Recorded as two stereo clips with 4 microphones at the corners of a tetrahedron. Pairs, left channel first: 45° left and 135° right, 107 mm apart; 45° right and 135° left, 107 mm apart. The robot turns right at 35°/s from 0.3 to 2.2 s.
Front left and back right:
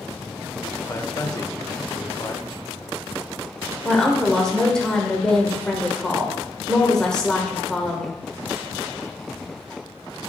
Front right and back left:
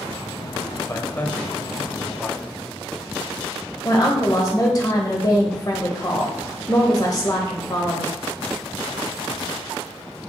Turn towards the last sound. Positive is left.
turn(degrees=-35)